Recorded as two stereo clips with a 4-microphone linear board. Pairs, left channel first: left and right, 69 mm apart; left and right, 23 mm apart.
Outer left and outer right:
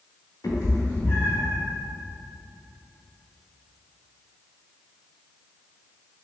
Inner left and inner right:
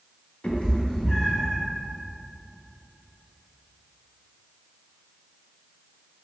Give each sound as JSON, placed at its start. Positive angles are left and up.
{"t": 0.4, "sound": "a cat meowing", "side_deg": 65, "distance_m": 0.9}